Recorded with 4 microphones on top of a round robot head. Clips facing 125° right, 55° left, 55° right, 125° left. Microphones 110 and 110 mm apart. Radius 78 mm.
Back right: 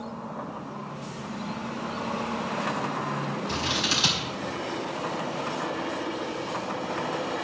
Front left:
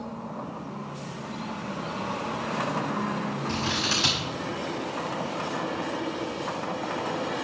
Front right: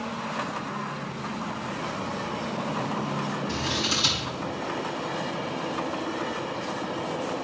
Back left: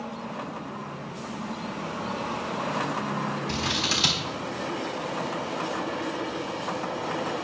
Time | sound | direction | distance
3.5 | scissors | 160° left | 4 m